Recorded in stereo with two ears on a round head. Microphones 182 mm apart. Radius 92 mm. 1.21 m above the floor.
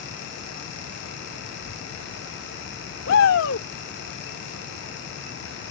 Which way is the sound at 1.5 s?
85° left.